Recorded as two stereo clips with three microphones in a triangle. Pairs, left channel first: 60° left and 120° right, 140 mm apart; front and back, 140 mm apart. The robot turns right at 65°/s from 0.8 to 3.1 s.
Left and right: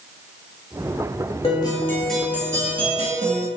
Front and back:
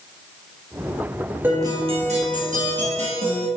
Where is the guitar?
105° left, 1.5 m; by 3.5 s 145° right, 1.5 m.